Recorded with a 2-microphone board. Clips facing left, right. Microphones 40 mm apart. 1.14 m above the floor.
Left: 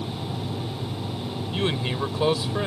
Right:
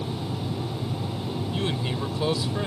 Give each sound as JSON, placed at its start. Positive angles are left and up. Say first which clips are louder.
{"t": 1.5, "sound": "a man speaking", "louder": "left 4 dB", "side_deg": 25}